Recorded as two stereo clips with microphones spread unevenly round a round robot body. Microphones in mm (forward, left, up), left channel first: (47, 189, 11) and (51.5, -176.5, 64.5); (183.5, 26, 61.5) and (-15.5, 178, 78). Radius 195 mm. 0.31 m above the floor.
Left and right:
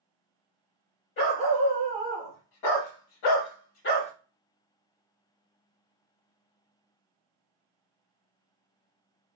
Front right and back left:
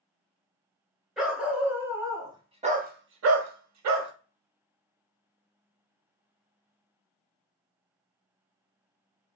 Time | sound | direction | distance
1.2 | a dog barking | 55° left | 2.0 m